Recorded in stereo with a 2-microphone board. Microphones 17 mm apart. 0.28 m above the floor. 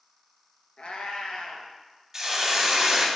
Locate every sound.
0.8 s a cat meowing: 85° left, 0.7 m
2.1 s a hiss: 20° right (ahead or behind), 0.6 m